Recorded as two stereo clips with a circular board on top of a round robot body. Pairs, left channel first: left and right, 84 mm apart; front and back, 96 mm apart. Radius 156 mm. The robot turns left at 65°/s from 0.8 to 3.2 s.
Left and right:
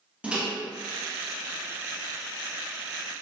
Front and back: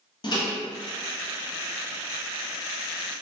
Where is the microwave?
15° right, 0.8 m.